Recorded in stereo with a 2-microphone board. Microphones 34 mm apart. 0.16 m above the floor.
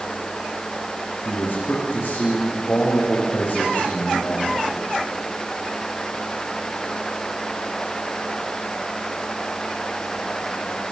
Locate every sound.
1.2 s a man speaking: 65° left (ahead or behind), 6.5 m